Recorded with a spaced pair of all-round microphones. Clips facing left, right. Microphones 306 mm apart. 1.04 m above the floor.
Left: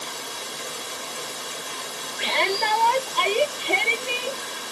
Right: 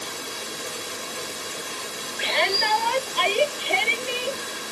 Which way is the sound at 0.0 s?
30° right (ahead or behind).